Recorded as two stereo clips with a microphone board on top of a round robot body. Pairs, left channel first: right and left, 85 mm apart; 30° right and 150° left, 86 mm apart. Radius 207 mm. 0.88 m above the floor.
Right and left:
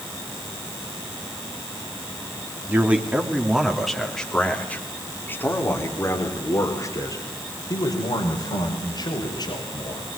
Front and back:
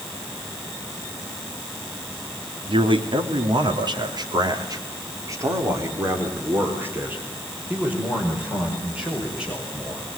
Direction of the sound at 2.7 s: 160° left.